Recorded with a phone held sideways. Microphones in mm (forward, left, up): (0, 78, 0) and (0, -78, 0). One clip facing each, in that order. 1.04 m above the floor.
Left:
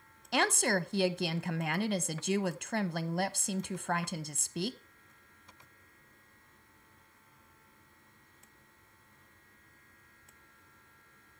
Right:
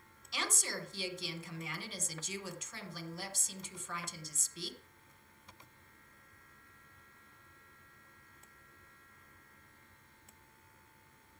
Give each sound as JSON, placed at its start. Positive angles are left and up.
{"t": 0.3, "sound": "a woman speaking", "side_deg": 65, "distance_m": 0.7}